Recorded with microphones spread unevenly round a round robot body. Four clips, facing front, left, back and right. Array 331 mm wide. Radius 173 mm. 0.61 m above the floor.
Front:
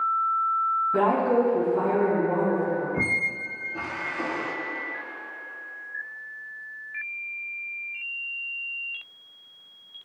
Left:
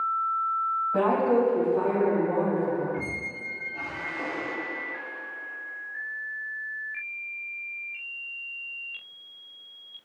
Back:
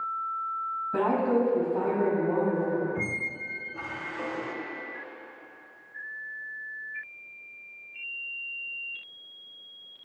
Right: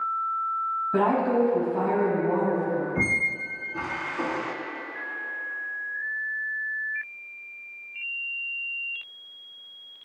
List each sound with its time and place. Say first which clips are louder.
0.9 s a woman speaking: even, front 2 dB; 115° right, 5.5 m; by 2.9 s 100° right, 5.5 m
3.0 s a squeak: right 6 dB, front 5 dB; 75° right, 1.3 m